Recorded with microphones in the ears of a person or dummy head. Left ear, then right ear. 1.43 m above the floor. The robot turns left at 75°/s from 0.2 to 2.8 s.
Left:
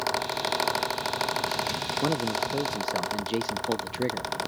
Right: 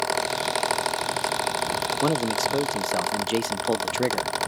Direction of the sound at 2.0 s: 80° right.